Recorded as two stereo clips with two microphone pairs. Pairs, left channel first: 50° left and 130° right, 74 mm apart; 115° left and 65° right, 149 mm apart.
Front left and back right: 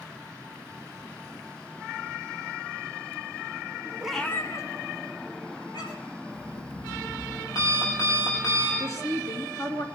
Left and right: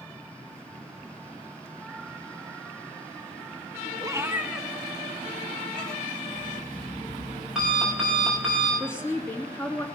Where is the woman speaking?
45° left, 2 m.